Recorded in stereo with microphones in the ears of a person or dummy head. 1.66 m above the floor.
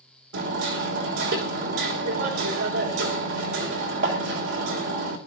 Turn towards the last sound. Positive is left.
turn(degrees=-70)  # may be behind; listen again after turning